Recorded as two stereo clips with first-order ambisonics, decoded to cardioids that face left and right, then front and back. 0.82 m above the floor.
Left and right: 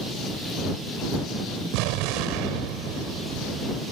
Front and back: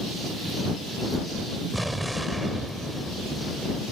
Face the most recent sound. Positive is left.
turn(degrees=-95)